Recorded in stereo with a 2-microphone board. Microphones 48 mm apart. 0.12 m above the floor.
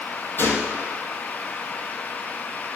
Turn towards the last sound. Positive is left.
turn(degrees=45)  # may be behind; listen again after turning